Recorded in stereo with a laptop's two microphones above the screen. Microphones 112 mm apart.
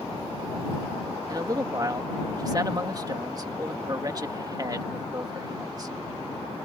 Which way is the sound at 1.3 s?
35° right (ahead or behind).